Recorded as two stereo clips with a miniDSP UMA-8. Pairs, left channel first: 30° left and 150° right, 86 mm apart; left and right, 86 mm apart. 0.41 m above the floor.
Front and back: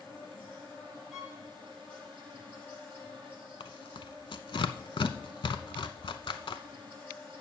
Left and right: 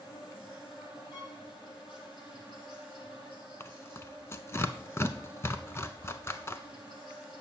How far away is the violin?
About 2.5 m.